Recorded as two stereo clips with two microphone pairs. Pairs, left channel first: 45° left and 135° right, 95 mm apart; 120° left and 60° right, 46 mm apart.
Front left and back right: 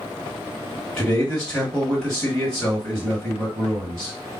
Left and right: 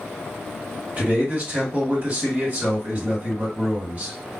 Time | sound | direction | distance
1.0 | a man speaking | 25° right | 2.0 m